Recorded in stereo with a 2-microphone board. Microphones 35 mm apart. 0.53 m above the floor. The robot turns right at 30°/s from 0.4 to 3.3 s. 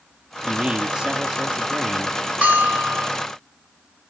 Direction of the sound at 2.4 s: 40° right (ahead or behind).